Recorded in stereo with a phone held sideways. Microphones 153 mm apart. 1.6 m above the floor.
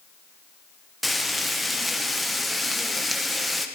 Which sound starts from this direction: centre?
Frying, at 1.0 s.